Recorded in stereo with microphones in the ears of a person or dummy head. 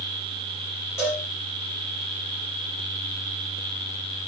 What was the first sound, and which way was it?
A cowbell, 5° right (ahead or behind).